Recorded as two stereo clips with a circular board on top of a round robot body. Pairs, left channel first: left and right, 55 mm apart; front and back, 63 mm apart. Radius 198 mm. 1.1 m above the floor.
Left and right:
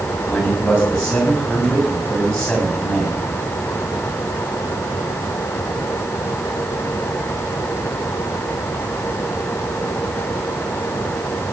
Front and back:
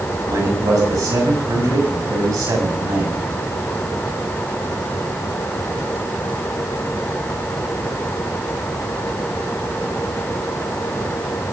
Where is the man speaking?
170° left, 7 m.